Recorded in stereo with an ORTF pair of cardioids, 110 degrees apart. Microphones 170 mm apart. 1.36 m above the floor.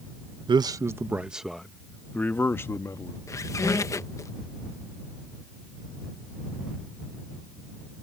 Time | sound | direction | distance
0.5 | a man speaking | 30° right | ?
3.3 | a squeak | 20° left | ?